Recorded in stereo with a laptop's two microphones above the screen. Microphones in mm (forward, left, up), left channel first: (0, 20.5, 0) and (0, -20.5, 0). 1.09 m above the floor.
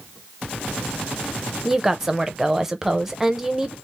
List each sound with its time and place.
1.6 s a woman speaking: 5° right (ahead or behind), 0.7 m